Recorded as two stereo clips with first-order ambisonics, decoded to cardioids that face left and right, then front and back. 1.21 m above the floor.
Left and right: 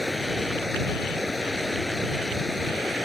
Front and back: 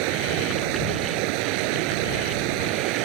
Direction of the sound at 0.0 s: 175° left.